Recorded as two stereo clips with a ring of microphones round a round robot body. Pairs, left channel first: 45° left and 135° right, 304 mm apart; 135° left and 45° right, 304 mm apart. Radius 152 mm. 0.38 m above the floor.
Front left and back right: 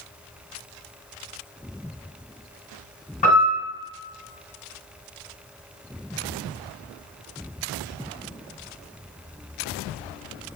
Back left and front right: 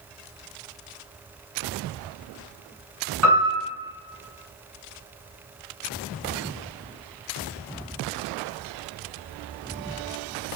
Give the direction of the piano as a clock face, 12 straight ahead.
1 o'clock.